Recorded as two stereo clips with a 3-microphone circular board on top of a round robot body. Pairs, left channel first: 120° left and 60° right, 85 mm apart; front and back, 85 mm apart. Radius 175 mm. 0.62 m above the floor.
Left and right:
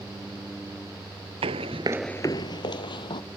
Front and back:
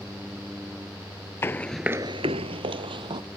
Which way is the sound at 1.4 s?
60° right.